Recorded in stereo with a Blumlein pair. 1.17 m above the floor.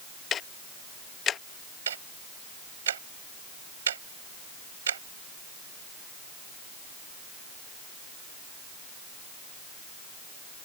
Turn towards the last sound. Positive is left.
turn(degrees=-65)